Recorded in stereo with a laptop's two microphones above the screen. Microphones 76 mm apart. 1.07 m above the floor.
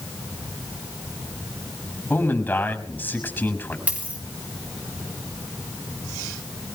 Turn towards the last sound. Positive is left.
turn(degrees=-20)  # may be behind; listen again after turning